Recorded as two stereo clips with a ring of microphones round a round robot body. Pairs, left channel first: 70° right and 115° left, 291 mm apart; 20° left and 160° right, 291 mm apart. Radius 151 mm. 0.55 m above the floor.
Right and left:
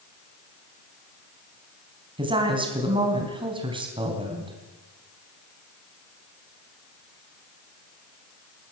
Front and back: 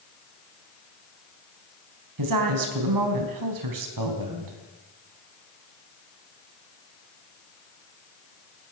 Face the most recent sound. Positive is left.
turn(degrees=-175)